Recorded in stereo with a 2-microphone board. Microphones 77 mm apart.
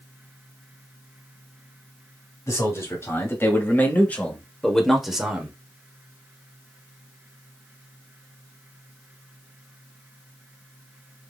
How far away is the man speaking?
About 3 m.